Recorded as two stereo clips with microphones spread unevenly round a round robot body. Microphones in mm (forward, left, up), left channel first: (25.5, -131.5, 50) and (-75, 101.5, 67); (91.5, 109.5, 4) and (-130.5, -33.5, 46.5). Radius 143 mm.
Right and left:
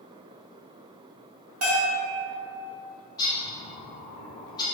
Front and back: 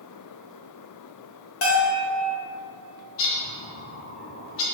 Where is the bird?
5° left, 0.5 m.